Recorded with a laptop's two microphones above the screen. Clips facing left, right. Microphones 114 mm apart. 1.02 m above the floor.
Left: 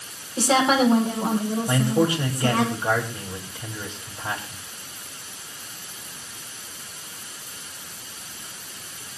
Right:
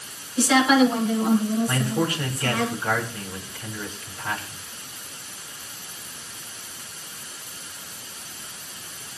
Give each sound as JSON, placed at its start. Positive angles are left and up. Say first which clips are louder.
{"t": 0.4, "sound": "a woman speaking", "louder": "right 2 dB", "side_deg": 40, "distance_m": 7.0}
{"t": 1.7, "sound": "a man speaking", "louder": "left 4 dB", "side_deg": 20, "distance_m": 4.5}